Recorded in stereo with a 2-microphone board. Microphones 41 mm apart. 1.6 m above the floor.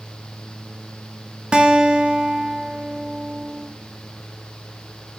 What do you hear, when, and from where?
1.5 s a guitar: 25° right (ahead or behind), 0.7 m